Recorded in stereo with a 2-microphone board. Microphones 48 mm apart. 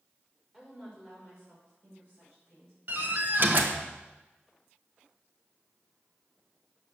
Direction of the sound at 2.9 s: 45° right (ahead or behind).